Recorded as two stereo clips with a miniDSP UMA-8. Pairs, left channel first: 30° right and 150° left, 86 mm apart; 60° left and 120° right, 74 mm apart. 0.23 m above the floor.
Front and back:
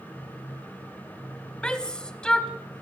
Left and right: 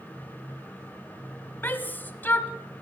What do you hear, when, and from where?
1.6 s a shout: 40° left, 1.0 m